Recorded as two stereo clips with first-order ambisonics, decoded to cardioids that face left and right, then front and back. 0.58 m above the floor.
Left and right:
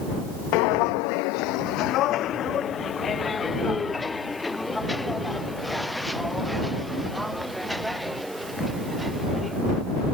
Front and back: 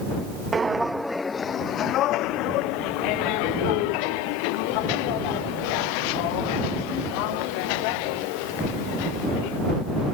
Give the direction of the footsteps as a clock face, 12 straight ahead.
8 o'clock.